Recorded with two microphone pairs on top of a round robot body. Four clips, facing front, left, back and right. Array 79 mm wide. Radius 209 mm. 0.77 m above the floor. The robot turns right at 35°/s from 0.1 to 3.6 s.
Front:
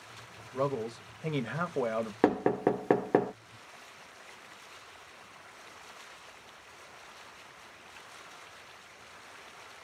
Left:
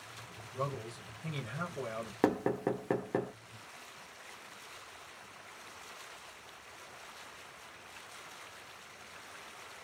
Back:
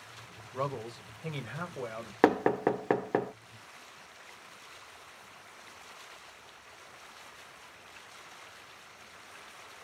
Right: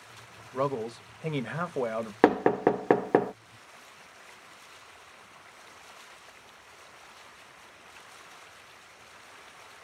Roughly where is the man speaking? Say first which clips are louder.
Right 9 dB, front 4 dB; right.